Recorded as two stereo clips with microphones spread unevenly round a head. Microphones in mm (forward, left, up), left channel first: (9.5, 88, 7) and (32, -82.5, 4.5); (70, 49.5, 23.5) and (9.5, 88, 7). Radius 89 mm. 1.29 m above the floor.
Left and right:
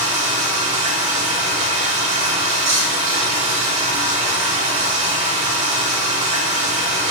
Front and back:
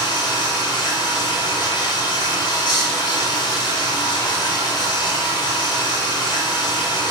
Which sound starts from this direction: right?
Running water, at 0.0 s.